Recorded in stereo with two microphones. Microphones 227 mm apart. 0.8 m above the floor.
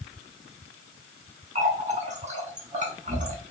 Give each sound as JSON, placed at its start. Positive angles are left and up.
{"t": 1.6, "sound": "a running tap", "side_deg": -30, "distance_m": 1.1}